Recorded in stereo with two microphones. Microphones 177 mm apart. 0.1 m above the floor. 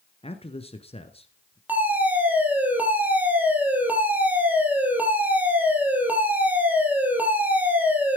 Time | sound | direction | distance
0.2 | a man speaking | 35° left (ahead or behind) | 1.4 m
1.7 | a fire alarm | 10° right (ahead or behind) | 4.5 m